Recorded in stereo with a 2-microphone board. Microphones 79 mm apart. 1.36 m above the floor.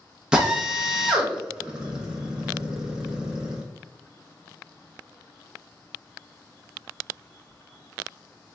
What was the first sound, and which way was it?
A drill, 10° right (ahead or behind).